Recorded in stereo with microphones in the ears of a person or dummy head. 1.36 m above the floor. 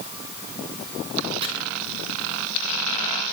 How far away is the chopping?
About 7.5 m.